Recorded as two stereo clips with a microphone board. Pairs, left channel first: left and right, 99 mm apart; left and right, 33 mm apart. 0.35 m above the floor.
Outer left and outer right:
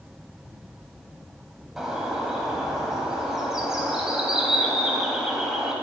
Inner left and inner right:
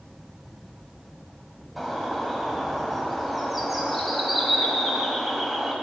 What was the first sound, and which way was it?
A bird, 5° right (ahead or behind).